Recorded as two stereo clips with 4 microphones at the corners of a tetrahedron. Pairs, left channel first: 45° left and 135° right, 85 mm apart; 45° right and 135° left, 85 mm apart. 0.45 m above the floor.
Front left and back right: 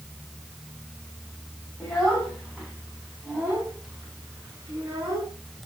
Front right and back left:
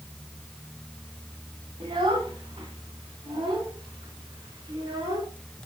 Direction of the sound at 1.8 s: 130° left.